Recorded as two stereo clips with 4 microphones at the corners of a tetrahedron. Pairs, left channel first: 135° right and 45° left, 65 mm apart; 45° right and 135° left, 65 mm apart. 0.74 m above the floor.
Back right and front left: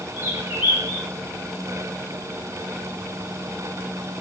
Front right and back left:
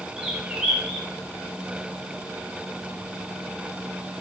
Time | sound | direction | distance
0.2 | a bird | 50° left | 1.2 m